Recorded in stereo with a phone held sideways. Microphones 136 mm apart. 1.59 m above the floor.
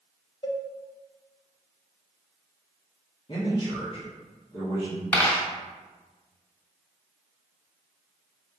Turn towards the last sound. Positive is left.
turn(degrees=10)  # may be behind; listen again after turning